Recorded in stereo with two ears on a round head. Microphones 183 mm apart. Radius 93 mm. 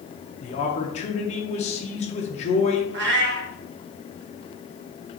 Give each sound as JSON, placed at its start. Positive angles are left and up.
{"t": 0.4, "sound": "a man speaking", "side_deg": 30, "distance_m": 0.7}
{"t": 2.9, "sound": "a cat meowing", "side_deg": -60, "distance_m": 0.7}